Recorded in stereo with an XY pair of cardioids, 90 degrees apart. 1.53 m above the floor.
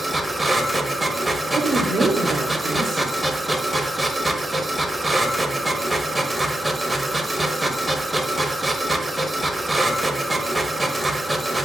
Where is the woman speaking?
65° right, 1.1 m.